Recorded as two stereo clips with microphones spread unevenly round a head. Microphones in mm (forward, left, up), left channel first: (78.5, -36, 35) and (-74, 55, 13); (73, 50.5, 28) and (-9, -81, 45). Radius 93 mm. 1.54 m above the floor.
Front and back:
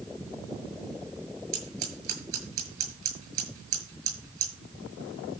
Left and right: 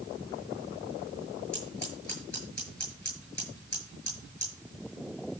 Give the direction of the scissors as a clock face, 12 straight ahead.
7 o'clock.